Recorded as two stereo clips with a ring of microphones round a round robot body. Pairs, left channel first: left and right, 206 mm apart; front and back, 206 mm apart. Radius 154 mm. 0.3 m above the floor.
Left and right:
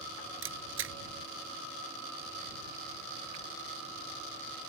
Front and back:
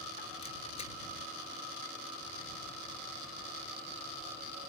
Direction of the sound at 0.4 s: 70° right.